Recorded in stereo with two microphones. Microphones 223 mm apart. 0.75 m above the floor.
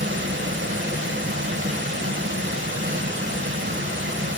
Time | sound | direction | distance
0.0 | running water | 55° right (ahead or behind) | 1.2 m